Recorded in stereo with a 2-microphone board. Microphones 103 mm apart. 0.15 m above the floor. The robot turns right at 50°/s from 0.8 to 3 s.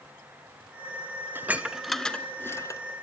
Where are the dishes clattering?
20° right (ahead or behind), 1.1 m; by 2.8 s 35° left (ahead or behind), 1.1 m.